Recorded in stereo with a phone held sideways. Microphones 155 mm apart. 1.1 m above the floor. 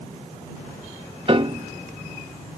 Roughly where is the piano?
Right.